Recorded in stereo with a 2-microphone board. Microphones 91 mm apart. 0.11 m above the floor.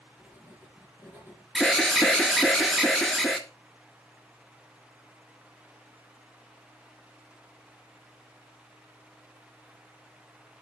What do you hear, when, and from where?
0.2 s writing: 20° right (ahead or behind), 2 m
1.6 s an alarm: centre (ahead or behind), 1.0 m